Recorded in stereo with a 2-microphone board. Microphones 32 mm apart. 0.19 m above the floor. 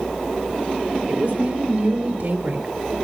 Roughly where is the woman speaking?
Right.